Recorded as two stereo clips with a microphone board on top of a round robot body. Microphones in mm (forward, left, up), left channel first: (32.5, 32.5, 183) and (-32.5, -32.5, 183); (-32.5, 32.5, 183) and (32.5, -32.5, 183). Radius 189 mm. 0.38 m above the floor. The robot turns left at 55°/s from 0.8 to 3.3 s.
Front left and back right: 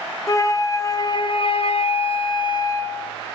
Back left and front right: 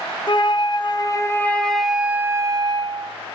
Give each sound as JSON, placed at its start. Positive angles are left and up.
{"t": 0.3, "sound": "a flute", "azimuth_deg": 100, "distance_m": 0.5}